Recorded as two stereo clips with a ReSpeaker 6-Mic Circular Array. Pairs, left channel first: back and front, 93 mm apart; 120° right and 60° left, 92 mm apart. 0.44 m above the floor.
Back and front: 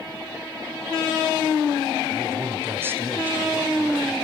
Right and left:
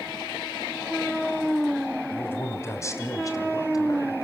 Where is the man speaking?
55° right, 2.5 m; by 4.2 s 75° right, 3 m.